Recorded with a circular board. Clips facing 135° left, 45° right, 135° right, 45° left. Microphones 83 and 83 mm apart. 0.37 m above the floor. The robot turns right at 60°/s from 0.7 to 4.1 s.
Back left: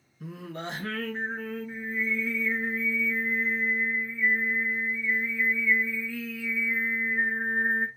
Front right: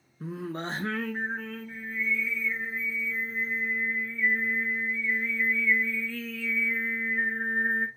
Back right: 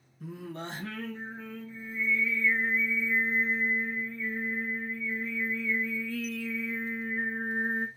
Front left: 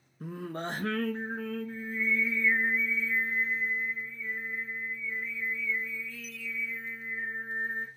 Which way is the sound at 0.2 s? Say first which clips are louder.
Front right 3 dB, front left 3 dB; 10° left.